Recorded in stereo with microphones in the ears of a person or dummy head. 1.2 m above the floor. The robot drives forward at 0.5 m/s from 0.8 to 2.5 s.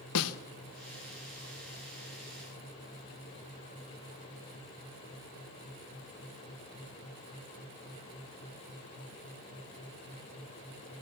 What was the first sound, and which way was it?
A snare drum, 75° left (ahead or behind).